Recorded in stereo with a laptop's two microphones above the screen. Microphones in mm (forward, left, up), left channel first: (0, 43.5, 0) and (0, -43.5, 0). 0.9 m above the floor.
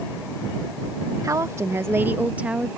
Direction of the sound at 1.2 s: 40° right (ahead or behind).